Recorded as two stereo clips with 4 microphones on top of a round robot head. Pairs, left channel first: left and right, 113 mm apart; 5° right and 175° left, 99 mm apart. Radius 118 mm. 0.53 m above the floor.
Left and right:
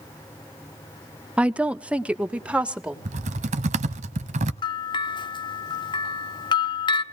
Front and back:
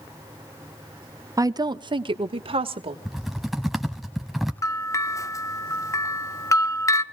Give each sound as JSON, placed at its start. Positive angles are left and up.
{"t": 1.4, "sound": "a woman speaking", "azimuth_deg": -165, "distance_m": 0.8}
{"t": 3.0, "sound": "typing on a keyboard", "azimuth_deg": -100, "distance_m": 0.6}
{"t": 4.6, "sound": "a bell", "azimuth_deg": 50, "distance_m": 1.2}